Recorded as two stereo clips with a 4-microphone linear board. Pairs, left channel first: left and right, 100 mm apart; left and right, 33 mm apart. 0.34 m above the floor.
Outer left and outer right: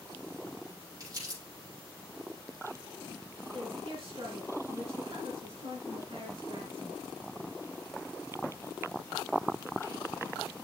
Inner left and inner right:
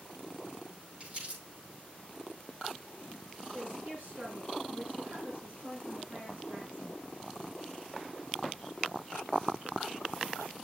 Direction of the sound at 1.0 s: 35° right (ahead or behind).